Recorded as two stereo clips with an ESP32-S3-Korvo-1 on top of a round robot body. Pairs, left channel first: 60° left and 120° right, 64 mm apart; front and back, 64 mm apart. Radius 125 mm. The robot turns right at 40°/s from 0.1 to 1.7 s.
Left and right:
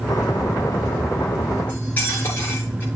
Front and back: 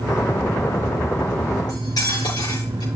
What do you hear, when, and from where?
1.7 s cutlery clinking: 5° right, 5.5 m